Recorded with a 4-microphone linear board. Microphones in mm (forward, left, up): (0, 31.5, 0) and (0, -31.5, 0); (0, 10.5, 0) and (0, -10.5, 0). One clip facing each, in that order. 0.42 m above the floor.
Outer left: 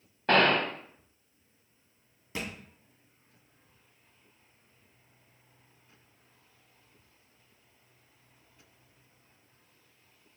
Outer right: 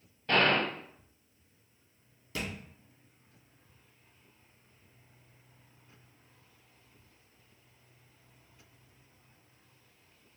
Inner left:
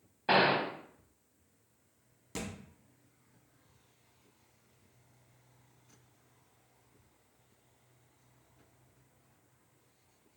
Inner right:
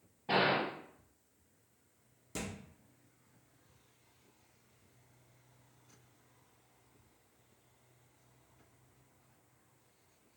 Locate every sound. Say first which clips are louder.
0.3 s a gunshot: outer left 3 dB, inner left 4 dB; 75° left (ahead or behind), 0.6 m
2.4 s a thud: even, inner left 1 dB; 25° left (ahead or behind), 1.2 m